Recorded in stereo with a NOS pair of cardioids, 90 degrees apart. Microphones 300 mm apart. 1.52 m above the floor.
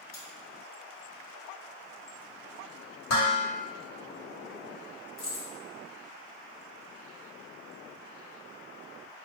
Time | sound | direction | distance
0.1 | cutlery clinking | 65° left | 2.0 m
3.1 | dishes clattering | 65° left | 1.7 m
5.2 | keys jangling | 65° left | 1.6 m